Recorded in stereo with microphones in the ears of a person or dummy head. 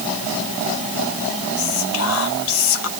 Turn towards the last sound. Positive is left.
turn(degrees=80)